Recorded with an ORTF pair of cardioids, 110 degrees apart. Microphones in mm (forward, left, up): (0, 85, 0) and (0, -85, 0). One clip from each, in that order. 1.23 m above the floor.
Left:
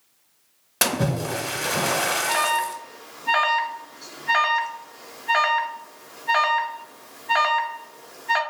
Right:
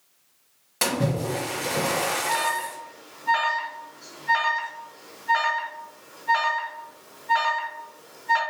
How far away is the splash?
About 0.9 m.